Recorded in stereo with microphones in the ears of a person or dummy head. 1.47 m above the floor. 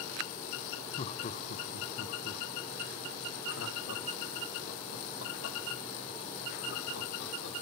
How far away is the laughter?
About 0.9 m.